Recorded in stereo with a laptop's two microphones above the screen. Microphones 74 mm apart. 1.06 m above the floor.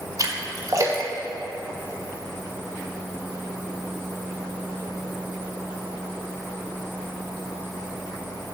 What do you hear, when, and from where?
0.2 s a splash: 45° right (ahead or behind), 1.5 m